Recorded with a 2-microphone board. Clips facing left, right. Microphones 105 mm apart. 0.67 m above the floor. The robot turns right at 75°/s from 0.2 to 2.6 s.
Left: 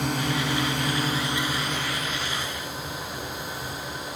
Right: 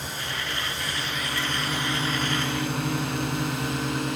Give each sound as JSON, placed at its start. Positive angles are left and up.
{"t": 0.0, "sound": "a drone", "side_deg": 65}